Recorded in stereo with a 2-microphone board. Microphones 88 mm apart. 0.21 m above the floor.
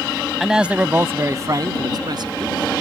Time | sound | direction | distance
0.4 | a man speaking | centre (ahead or behind) | ?